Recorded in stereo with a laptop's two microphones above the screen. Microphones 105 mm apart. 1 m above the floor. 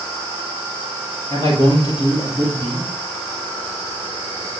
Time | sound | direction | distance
1.3 | a man speaking | 55° left (ahead or behind) | 5.5 m